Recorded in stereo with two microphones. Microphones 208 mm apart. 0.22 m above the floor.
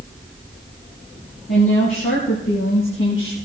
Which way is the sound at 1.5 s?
70° left (ahead or behind).